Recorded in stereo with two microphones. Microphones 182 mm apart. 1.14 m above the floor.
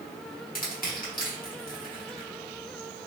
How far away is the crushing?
About 1.1 m.